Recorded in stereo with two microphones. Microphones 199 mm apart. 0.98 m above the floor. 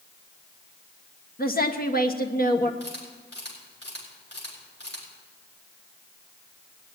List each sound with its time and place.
1.4 s a woman speaking: 50° left (ahead or behind), 1.3 m
2.8 s a camera shutter: 60° left (ahead or behind), 5 m